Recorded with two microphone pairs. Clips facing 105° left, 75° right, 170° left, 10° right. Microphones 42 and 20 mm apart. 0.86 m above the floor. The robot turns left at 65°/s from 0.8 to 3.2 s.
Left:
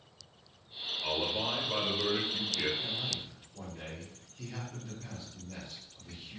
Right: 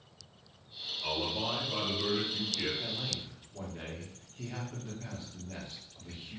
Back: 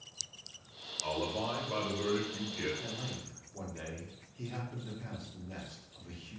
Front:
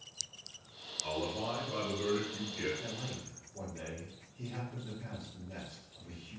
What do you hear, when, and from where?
1.0 s a man speaking: 170° right, 1.1 m; by 2.7 s 80° left, 1.1 m
2.8 s a man speaking: 105° right, 0.9 m; by 6.4 s 130° right, 0.9 m